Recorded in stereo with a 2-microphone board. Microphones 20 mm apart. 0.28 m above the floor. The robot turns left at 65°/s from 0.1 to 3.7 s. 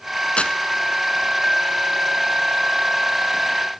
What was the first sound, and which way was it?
Tearing paper, 65° left (ahead or behind).